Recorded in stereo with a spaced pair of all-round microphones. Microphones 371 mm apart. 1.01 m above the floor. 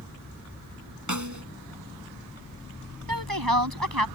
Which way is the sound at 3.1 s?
70° right (ahead or behind).